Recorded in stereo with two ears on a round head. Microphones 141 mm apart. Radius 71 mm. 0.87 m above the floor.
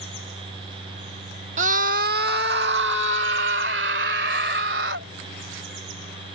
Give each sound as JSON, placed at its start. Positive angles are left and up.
{"t": 1.6, "sound": "a scream", "side_deg": -45}